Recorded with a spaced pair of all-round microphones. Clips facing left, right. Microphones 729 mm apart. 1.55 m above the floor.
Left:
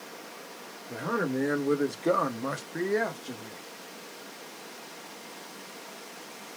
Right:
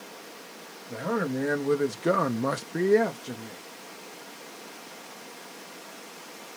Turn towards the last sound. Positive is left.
turn(degrees=-45)  # may be behind; listen again after turning